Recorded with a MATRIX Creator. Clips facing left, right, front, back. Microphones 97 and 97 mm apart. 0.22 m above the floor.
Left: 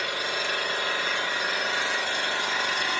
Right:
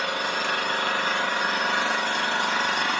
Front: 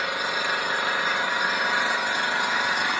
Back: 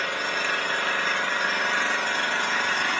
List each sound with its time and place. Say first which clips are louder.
0.0 s an engine running: right 3 dB, front 1 dB; 75° right, 1.9 m